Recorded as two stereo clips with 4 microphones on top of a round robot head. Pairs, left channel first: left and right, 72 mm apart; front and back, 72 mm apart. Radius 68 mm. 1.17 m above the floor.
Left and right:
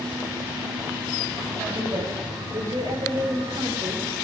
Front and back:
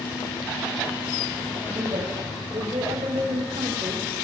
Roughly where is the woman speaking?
Behind right.